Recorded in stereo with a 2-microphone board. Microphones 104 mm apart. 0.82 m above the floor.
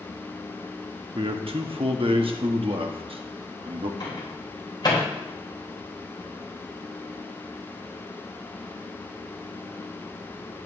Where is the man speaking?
65° right (ahead or behind), 1.0 m.